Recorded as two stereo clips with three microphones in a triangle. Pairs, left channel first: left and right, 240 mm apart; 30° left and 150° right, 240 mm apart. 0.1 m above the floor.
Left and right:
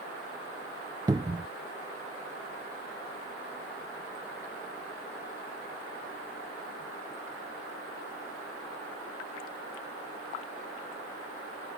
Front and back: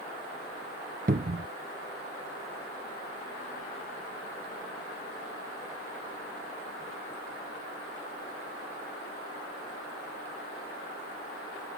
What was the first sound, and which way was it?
A cupboard door, 155° right.